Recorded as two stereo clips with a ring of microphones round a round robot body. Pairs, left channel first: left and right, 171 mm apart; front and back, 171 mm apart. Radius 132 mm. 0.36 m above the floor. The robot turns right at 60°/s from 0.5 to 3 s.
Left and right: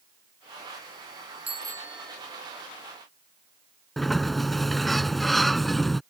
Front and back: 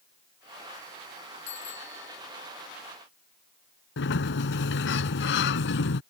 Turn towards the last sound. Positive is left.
turn(degrees=0)